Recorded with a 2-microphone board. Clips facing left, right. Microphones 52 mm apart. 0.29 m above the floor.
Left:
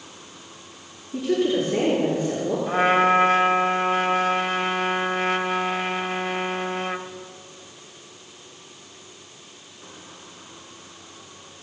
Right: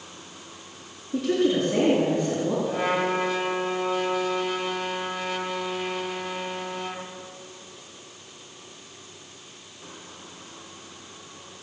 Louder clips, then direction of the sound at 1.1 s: Left 1 dB; 45° right (ahead or behind).